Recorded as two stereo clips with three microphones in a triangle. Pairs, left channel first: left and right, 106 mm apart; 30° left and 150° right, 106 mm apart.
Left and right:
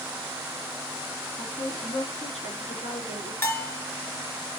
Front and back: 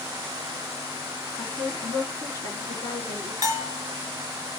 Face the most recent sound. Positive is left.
turn(degrees=155)